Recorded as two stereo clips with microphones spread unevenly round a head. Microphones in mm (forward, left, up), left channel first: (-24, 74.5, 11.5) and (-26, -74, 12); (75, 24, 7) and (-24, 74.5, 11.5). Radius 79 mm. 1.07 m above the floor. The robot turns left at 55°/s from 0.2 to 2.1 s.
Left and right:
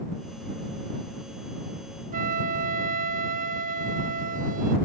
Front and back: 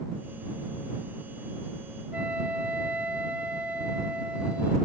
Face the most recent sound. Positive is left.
turn(degrees=-125)